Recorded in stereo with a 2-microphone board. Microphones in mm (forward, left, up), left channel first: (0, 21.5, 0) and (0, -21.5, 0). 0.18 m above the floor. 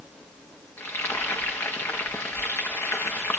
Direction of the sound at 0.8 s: 65° left (ahead or behind).